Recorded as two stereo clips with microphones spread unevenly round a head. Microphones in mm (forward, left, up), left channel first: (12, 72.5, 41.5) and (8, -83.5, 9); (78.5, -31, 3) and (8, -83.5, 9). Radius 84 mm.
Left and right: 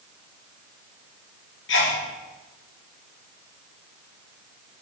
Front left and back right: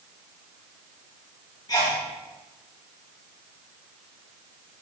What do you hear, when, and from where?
1.7 s a sneeze: 100° left, 1.8 m